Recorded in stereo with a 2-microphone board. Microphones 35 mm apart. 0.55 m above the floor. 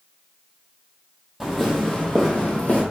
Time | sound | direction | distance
1.4 | footsteps | 5° right (ahead or behind) | 1.1 m